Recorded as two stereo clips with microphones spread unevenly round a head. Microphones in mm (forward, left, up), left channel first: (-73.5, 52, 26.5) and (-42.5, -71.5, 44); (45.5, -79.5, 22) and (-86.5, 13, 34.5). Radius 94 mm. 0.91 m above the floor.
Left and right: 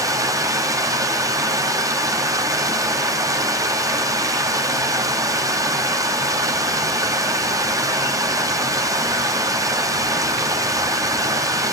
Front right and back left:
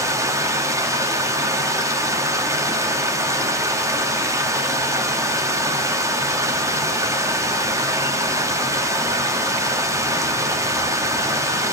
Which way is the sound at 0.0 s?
140° right.